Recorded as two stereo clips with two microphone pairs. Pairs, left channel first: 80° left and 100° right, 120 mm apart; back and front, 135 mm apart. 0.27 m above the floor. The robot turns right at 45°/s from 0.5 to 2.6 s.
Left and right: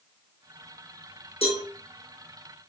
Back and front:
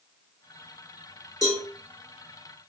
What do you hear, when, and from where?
1.4 s a cowbell: 115° left, 4.5 m; by 1.6 s 125° left, 4.5 m